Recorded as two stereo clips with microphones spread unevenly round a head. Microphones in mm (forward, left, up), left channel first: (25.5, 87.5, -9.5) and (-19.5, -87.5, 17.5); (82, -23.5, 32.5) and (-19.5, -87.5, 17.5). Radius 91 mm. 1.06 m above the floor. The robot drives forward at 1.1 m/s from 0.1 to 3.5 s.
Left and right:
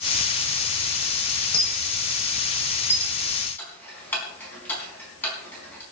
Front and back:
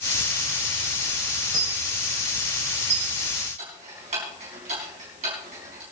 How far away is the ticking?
About 4.5 m.